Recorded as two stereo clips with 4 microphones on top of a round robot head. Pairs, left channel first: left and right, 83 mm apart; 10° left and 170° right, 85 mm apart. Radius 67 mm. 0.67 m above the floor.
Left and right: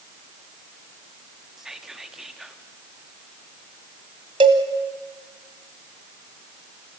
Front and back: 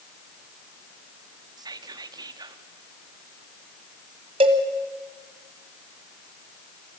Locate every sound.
1.6 s whispering: 170° right, 1.2 m
4.4 s a cowbell: 135° right, 1.4 m